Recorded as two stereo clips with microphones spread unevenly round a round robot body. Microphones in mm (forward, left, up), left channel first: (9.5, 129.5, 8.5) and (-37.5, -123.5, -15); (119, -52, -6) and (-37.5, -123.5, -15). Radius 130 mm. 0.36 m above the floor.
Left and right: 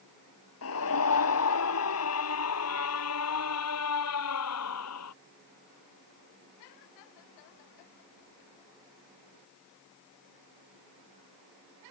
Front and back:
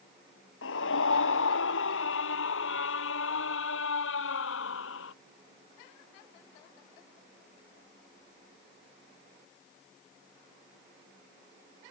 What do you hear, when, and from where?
0.6 s a scream: 40° left; by 5.1 s 45° left